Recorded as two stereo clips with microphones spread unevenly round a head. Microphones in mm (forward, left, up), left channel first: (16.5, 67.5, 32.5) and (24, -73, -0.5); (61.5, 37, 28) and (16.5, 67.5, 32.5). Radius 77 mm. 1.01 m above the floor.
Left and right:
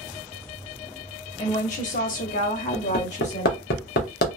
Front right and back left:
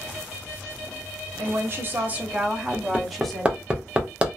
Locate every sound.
1.4 s a woman speaking: 140° left, 0.8 m; by 3.6 s 45° left, 1.4 m
2.7 s hammering: 75° left, 0.8 m